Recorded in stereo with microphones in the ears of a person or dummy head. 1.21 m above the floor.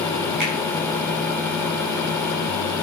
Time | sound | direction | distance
0.4 | a finger snap | 55° right (ahead or behind) | 6.5 m